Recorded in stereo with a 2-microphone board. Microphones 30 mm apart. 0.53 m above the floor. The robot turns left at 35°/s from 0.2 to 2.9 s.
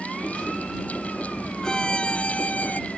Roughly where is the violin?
Behind left.